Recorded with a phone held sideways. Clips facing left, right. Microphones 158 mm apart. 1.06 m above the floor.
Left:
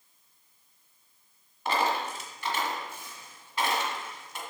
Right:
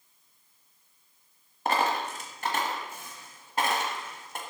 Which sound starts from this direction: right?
A dropped coin, at 1.6 s.